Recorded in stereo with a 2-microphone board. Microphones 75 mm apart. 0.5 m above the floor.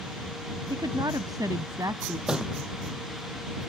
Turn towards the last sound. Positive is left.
turn(degrees=-10)  # may be behind; listen again after turning